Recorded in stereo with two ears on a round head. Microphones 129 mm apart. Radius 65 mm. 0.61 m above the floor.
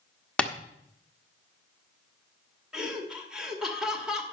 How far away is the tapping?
About 1.0 m.